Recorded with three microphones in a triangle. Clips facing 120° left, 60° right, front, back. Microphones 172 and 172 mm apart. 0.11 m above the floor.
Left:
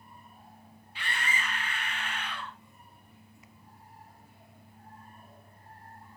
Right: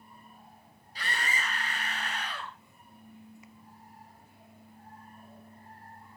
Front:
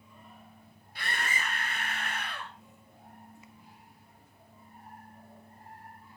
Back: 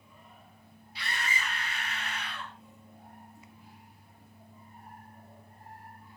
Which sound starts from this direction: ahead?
A scream, at 0.9 s.